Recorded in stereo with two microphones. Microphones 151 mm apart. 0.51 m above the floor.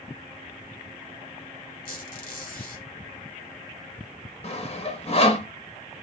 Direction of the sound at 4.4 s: 45° left (ahead or behind).